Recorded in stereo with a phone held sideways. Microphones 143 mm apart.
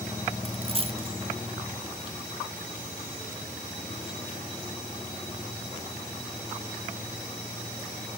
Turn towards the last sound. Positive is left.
turn(degrees=-40)  # may be behind; listen again after turning